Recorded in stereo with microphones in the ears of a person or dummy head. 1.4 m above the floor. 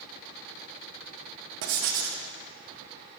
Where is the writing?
75° right (ahead or behind), 0.7 m.